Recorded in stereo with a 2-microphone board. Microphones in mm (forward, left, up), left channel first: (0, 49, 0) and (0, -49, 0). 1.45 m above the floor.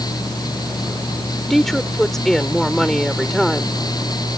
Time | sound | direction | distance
1.5 | a woman speaking | 5° left (ahead or behind) | ?